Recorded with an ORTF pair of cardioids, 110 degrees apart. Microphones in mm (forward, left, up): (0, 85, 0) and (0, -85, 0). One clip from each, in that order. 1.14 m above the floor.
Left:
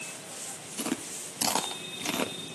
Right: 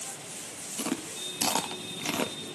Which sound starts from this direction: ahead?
Chewing, at 0.8 s.